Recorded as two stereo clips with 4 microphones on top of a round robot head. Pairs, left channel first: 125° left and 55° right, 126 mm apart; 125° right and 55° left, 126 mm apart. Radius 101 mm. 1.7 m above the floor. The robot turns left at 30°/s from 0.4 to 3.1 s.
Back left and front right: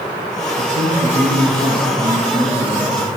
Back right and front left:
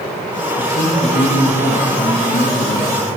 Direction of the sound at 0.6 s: 80° right.